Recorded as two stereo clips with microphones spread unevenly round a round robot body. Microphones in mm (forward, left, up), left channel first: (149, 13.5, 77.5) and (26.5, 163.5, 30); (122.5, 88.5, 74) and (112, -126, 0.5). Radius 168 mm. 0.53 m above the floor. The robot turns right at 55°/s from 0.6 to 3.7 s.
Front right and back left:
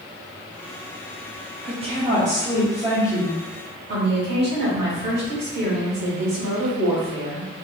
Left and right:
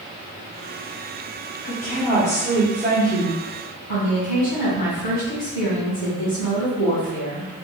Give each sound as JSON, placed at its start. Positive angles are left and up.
{"t": 1.6, "sound": "a woman speaking", "azimuth_deg": 145, "distance_m": 1.0}
{"t": 3.9, "sound": "a woman speaking", "azimuth_deg": 120, "distance_m": 1.9}